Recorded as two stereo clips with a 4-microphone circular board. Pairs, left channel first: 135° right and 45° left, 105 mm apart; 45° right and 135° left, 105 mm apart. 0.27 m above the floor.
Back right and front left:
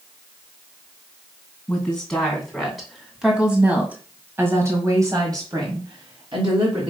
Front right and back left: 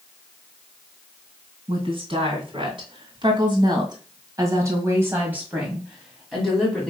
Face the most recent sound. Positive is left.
turn(degrees=35)